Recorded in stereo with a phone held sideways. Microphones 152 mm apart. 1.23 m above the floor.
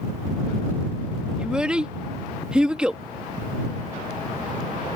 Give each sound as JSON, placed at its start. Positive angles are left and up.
{"t": 1.4, "sound": "a child speaking", "side_deg": -5}